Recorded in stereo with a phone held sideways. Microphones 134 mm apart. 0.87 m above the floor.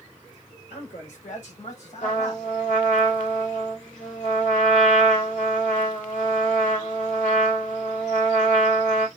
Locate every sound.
0.7 s a man speaking: 70° left (ahead or behind), 3 m; by 2.5 s 50° left (ahead or behind), 3 m
2.0 s a trumpet: 75° left (ahead or behind), 1.9 m